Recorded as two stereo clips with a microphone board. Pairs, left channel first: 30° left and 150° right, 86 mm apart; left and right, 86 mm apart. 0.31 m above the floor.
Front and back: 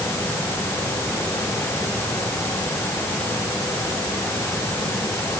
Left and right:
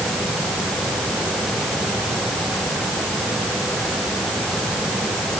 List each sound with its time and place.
Only background noise.